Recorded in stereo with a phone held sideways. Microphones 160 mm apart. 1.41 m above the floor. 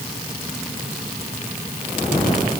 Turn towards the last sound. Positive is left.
No sound to turn to.